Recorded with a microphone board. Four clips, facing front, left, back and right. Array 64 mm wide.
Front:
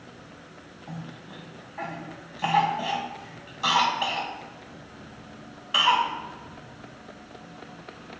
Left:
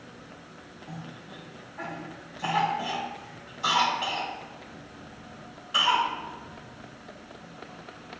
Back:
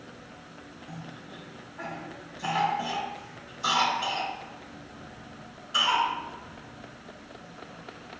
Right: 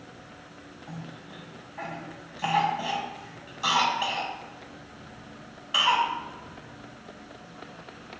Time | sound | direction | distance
0.9 | a cough | 25° right | 2.5 m